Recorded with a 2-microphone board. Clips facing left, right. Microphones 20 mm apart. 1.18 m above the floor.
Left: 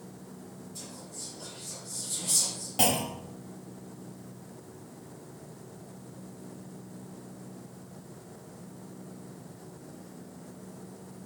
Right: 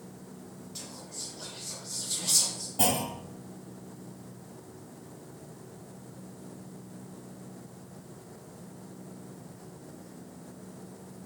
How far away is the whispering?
About 0.8 m.